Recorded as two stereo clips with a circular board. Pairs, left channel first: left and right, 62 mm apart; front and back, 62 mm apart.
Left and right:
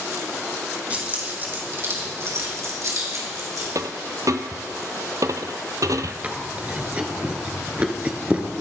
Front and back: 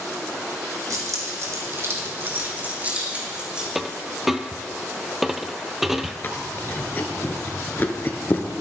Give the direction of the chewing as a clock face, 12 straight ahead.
1 o'clock.